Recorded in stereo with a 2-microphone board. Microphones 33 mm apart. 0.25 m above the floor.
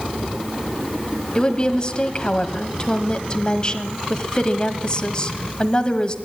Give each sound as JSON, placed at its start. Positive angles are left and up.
{"t": 1.4, "sound": "a woman speaking", "side_deg": 30, "distance_m": 1.2}